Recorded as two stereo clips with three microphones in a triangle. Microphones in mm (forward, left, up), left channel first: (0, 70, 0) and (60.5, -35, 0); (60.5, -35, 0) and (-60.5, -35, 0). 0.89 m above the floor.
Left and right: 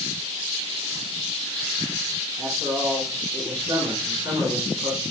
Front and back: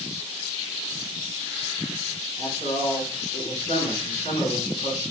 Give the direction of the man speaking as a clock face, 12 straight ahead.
12 o'clock.